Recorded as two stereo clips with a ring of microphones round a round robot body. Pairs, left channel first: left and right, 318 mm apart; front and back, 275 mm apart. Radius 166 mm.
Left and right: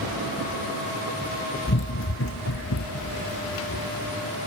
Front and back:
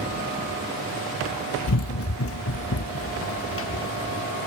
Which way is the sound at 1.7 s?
30° left.